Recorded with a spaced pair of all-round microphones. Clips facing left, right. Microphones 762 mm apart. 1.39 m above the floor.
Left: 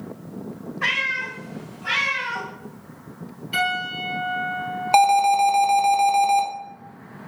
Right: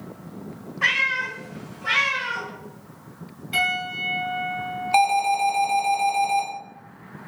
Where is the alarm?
70° left (ahead or behind), 0.8 m.